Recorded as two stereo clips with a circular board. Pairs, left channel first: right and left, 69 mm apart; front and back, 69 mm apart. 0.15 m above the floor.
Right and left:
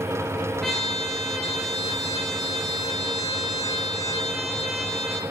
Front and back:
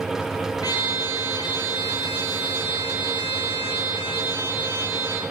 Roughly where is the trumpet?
Ahead.